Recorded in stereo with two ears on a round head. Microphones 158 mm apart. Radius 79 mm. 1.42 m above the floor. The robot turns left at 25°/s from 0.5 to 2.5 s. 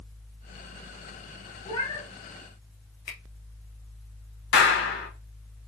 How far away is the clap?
About 1.3 m.